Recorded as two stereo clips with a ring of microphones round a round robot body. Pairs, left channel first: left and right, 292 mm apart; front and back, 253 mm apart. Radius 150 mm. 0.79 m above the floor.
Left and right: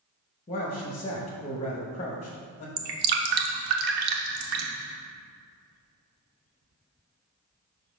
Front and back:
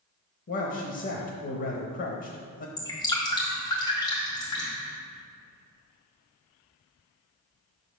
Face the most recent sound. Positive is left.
turn(degrees=-75)